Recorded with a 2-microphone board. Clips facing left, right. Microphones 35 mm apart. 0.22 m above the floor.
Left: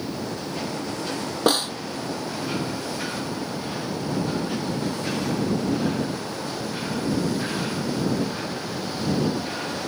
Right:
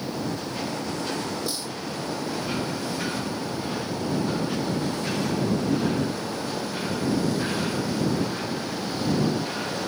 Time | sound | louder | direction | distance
1.5 | a snare drum | left 10 dB | 70° left (ahead or behind) | ?